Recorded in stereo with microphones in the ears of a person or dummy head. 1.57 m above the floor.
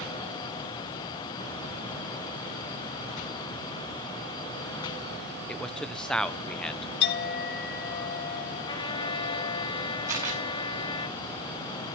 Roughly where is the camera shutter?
Centre.